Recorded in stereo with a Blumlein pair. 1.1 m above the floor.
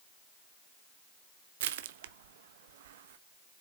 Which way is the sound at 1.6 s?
55° right.